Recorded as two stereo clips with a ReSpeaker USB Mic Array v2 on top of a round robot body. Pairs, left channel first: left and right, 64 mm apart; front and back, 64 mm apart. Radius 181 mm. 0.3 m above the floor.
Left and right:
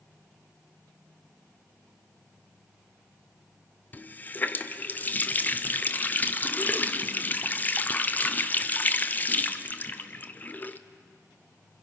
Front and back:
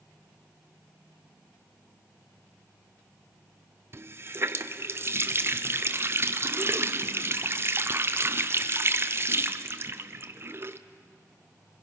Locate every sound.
3.9 s a running tap: 145° left, 1.0 m